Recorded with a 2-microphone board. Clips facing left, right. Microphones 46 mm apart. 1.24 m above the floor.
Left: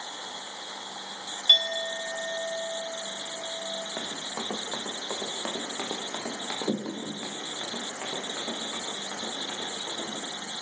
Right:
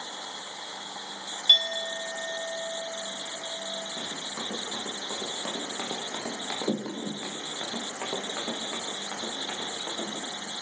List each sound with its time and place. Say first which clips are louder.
1.5 s a clink: even; 10° left (ahead or behind), 2 m
4.0 s running footsteps: left 1 dB; 55° left (ahead or behind), 4 m; by 10.2 s 30° right (ahead or behind), 9 m